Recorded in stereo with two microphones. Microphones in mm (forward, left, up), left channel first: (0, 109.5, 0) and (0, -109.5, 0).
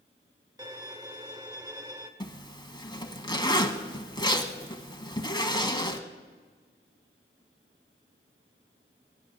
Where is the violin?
15° right (ahead or behind), 1.1 m.